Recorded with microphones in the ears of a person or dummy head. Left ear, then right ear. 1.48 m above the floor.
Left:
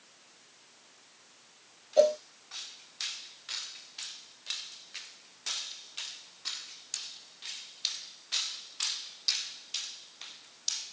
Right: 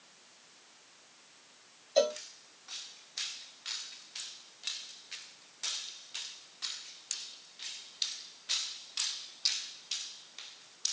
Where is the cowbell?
45° right (ahead or behind), 1.3 m.